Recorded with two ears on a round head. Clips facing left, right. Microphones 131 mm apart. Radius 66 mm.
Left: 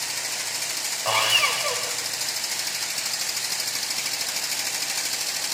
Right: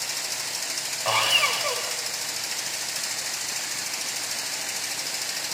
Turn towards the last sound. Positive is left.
turn(degrees=0)  # may be behind; listen again after turning